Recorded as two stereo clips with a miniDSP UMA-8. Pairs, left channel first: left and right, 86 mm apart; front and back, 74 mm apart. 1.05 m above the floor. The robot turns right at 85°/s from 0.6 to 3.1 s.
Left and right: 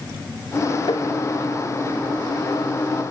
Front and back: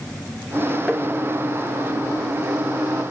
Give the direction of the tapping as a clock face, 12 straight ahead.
9 o'clock.